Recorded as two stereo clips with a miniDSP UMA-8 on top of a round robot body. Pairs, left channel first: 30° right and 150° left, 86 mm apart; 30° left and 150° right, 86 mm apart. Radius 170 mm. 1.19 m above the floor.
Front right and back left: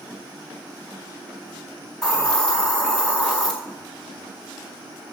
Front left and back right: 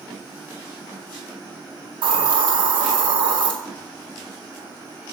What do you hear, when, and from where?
2.0 s a hiss: 115° right, 0.6 m